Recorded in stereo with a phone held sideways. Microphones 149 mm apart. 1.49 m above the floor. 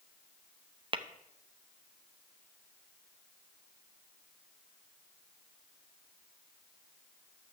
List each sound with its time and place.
0.9 s tapping: 35° right (ahead or behind), 0.5 m